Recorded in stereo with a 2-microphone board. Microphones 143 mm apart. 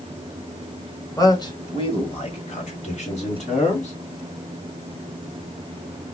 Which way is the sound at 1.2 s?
25° left (ahead or behind).